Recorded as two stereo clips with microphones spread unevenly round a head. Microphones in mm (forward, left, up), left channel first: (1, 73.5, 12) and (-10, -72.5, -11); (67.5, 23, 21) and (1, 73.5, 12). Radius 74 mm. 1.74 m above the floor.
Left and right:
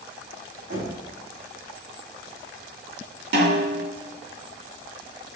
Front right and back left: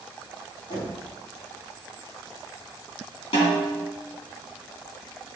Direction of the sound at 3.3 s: 70° right.